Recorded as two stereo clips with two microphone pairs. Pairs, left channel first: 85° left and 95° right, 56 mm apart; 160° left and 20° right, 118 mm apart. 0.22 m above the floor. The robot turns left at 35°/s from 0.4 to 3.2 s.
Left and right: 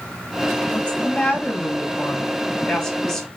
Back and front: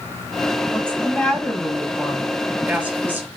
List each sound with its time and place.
0.7 s a woman speaking: 100° left, 1.6 m; by 3.3 s 15° left, 1.6 m